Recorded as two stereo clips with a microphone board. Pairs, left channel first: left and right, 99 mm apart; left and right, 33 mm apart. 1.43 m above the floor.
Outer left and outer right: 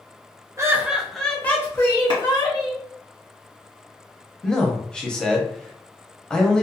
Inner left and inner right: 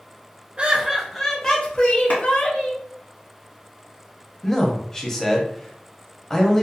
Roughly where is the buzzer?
I don't hear a buzzer.